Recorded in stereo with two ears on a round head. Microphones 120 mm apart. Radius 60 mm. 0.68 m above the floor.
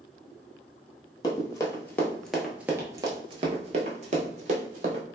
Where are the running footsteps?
30° left (ahead or behind), 1.0 m; by 5.0 s 60° right (ahead or behind), 1.4 m.